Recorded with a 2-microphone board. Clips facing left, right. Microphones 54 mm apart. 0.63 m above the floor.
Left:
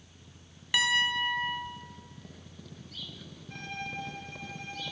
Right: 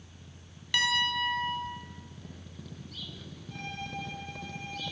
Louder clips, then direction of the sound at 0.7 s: Left 1 dB; 15° left (ahead or behind).